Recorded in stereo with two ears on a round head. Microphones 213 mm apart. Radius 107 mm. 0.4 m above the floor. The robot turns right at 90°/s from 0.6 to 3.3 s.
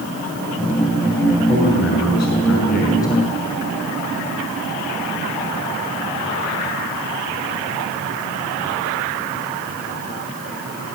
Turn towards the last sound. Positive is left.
turn(degrees=-175)